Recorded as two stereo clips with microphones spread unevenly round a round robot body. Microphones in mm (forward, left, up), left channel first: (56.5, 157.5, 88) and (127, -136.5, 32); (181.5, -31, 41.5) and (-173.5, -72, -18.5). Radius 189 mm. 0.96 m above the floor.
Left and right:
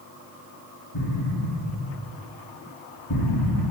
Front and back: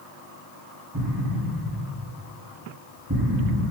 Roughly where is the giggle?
I don't hear a giggle.